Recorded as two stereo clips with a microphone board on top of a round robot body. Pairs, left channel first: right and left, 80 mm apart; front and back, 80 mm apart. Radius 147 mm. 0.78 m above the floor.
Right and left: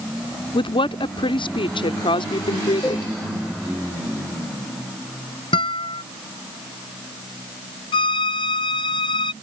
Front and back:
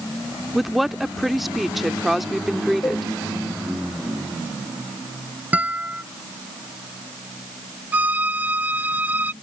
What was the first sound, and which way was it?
A woman speaking, 90° right.